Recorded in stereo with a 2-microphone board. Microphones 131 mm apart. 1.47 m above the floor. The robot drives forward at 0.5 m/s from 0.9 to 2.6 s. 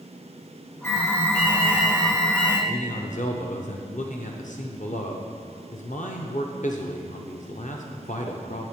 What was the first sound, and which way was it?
An alarm, 20° left (ahead or behind).